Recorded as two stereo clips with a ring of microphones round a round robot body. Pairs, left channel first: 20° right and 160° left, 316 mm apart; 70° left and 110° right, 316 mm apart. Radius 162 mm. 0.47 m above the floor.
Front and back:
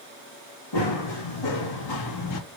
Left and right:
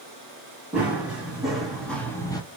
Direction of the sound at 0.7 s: 25° right.